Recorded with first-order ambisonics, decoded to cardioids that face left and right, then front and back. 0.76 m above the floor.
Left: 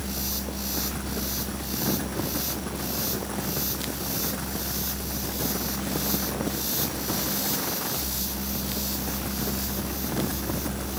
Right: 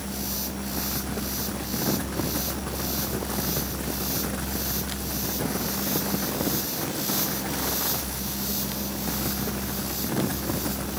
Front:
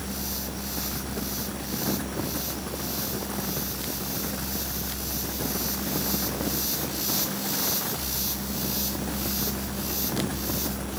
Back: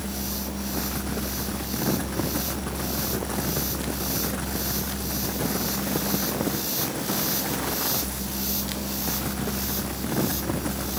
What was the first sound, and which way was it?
Only background noise.